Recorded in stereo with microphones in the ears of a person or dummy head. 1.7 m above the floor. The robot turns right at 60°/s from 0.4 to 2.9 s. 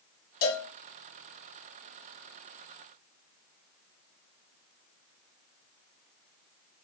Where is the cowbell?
45° left (ahead or behind), 0.8 m; by 0.7 s 60° left (ahead or behind), 0.8 m.